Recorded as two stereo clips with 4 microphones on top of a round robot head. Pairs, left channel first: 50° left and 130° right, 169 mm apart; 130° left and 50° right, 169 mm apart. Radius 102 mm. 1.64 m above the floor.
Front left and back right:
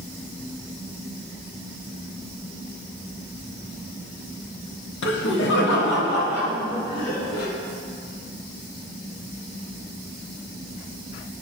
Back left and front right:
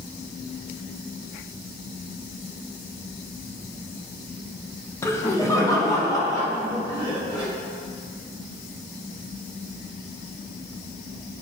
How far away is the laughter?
About 1.0 m.